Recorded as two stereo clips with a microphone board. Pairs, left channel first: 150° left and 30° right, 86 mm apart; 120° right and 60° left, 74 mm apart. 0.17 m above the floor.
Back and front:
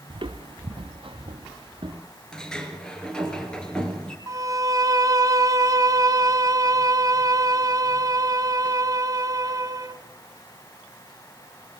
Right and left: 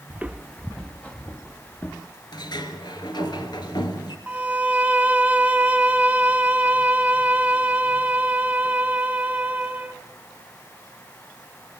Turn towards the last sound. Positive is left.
turn(degrees=-5)